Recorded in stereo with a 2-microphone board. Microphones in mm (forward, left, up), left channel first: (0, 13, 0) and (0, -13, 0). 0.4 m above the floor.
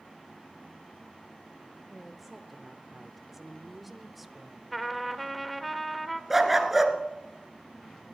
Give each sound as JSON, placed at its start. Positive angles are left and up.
{"t": 1.9, "sound": "a woman speaking", "side_deg": -5, "distance_m": 1.2}
{"t": 4.7, "sound": "a trumpet", "side_deg": 0, "distance_m": 0.8}
{"t": 6.3, "sound": "a dog barking", "side_deg": -5, "distance_m": 1.3}